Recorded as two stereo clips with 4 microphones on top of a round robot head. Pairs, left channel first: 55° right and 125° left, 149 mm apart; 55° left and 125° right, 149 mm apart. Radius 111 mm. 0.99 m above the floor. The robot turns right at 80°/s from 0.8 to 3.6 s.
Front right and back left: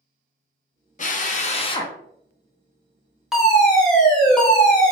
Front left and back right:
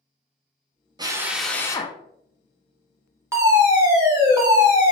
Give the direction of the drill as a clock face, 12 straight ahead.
2 o'clock.